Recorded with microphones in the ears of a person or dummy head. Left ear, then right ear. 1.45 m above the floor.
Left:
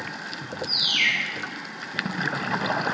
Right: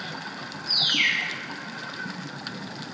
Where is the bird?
Centre (ahead or behind), 0.7 m.